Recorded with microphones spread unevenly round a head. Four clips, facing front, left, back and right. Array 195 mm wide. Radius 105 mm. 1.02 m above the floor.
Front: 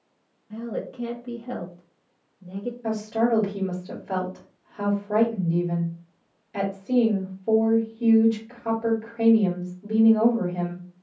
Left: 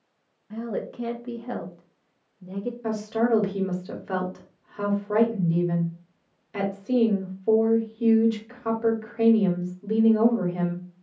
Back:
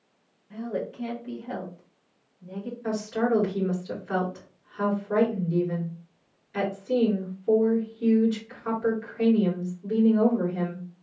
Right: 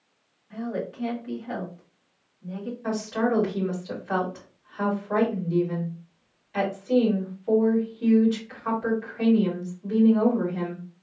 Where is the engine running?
I don't hear an engine running.